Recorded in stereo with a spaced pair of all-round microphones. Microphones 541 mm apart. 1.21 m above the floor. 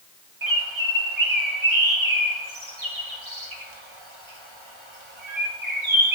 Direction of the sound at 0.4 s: 65° right (ahead or behind).